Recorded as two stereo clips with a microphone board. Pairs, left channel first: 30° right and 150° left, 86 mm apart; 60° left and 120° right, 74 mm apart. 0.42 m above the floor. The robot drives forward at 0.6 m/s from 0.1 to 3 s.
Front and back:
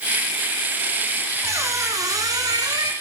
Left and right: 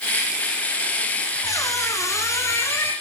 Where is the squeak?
95° left, 3.5 m; by 2.9 s 110° left, 3.5 m.